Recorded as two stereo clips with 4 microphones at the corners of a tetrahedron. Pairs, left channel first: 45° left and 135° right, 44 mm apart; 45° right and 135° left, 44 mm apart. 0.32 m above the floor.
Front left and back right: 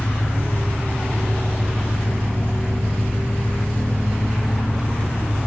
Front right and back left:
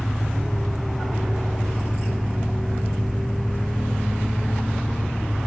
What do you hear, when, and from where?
0.0 s an engine running: 10° left, 3.5 m